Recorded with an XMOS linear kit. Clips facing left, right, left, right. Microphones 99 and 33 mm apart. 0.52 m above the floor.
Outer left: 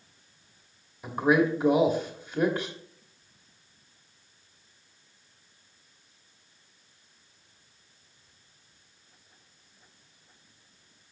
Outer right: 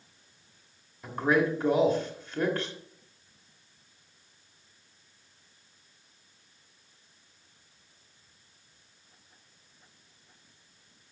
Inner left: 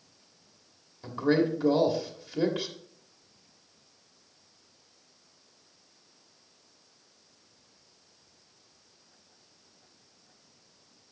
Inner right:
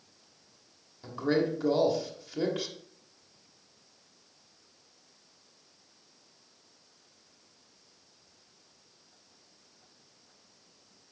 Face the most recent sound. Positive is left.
turn(degrees=10)  # may be behind; listen again after turning